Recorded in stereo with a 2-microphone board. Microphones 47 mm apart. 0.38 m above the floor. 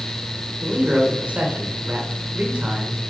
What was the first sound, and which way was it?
A man speaking, 35° right (ahead or behind).